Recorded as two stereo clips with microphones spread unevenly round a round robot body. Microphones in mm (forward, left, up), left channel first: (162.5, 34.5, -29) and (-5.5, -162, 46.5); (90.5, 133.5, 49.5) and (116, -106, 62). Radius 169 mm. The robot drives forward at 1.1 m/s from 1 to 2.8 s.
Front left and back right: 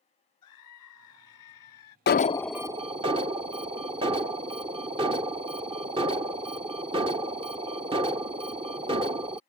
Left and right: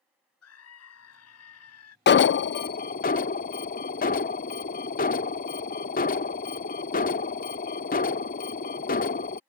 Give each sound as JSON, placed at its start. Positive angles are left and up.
{"t": 0.4, "sound": "a scream", "azimuth_deg": 85}
{"t": 2.1, "sound": "an alarm", "azimuth_deg": 60}